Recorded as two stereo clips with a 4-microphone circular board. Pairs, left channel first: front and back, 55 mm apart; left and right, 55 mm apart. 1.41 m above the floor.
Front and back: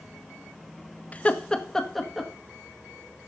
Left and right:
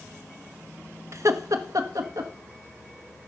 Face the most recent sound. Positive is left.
turn(degrees=-90)